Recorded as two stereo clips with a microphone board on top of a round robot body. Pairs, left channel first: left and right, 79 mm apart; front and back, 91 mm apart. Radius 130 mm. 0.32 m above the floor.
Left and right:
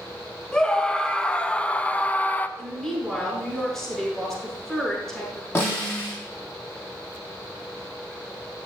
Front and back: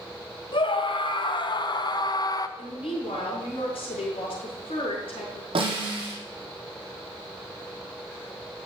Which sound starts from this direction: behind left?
A snare drum, at 5.5 s.